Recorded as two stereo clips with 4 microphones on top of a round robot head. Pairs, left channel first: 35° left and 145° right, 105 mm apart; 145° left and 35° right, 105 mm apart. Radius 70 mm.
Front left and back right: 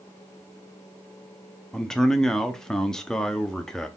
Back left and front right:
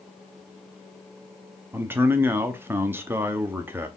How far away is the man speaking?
About 0.6 m.